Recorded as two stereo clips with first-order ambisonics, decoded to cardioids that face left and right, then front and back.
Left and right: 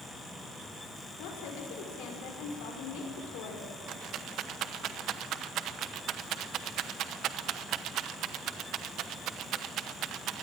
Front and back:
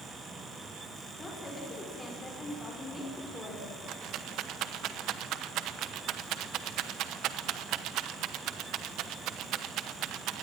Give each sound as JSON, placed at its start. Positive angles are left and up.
{"t": 1.2, "sound": "a woman speaking", "azimuth_deg": 75, "distance_m": 5.5}
{"t": 3.9, "sound": "a rattle", "azimuth_deg": -140, "distance_m": 0.9}